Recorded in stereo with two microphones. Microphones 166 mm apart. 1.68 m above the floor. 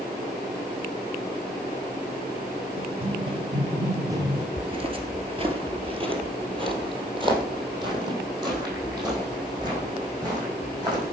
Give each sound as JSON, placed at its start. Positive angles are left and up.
{"t": 2.8, "sound": "running footsteps", "side_deg": -35, "distance_m": 2.0}
{"t": 4.6, "sound": "footsteps", "side_deg": -30, "distance_m": 1.9}